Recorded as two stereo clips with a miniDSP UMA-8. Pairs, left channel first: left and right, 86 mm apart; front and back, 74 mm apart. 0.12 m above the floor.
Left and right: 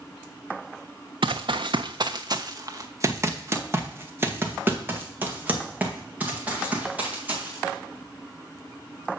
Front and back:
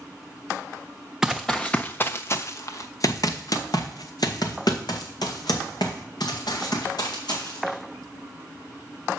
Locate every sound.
1.2 s running footsteps: 95° right, 0.6 m; by 7.8 s 15° right, 3.5 m